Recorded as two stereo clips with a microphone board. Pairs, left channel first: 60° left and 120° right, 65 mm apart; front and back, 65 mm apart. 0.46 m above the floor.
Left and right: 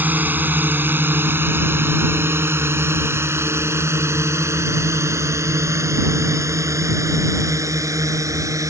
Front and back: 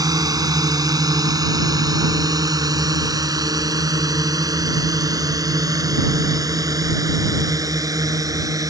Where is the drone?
Straight behind; by 8.7 s 155° right.